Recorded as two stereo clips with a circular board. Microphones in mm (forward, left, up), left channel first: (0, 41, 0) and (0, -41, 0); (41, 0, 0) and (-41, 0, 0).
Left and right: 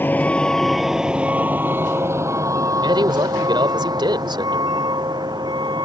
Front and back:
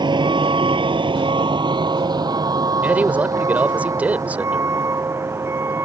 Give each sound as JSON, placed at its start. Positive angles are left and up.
{"t": 0.0, "sound": "a vehicle", "azimuth_deg": 155}
{"t": 2.8, "sound": "a man speaking", "azimuth_deg": -110}